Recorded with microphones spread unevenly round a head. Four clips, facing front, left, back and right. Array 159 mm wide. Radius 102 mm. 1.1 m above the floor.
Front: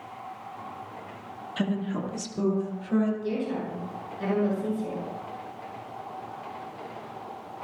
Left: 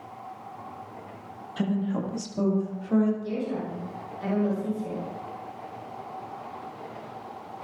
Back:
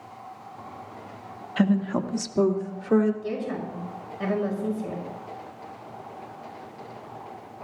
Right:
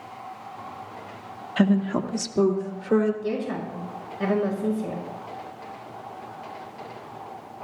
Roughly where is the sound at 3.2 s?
Right.